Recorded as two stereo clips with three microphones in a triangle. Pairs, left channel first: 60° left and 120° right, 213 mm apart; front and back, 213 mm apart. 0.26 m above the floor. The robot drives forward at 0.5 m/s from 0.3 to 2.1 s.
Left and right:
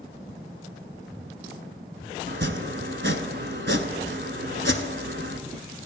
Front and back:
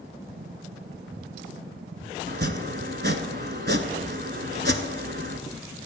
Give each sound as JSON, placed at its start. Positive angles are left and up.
{"t": 2.3, "sound": "chopping", "azimuth_deg": -145, "distance_m": 0.8}